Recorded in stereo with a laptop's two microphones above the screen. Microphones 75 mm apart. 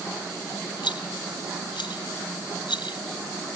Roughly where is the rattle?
Left.